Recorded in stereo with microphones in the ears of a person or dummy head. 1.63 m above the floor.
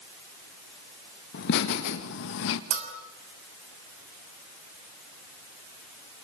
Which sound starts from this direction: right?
A bell, at 2.7 s.